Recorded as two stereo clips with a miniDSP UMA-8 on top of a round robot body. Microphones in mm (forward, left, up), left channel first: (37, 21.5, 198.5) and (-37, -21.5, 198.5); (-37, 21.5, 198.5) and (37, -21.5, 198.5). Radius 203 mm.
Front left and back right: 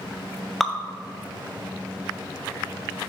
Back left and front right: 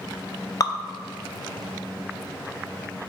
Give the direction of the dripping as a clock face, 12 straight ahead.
8 o'clock.